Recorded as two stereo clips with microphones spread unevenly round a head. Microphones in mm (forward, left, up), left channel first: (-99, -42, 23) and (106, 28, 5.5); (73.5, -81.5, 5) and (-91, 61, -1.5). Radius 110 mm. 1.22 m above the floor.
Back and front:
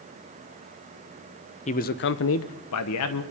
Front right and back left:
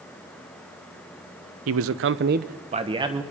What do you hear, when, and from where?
1.7 s a man speaking: 140° left, 0.7 m; by 3.2 s 150° right, 1.1 m